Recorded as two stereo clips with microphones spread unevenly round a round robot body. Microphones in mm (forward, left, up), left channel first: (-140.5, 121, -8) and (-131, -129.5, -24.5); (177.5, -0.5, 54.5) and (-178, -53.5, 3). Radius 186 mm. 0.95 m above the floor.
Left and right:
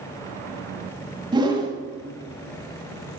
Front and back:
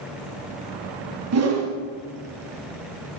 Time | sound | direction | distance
1.3 | a whoosh | 155° right | 1.3 m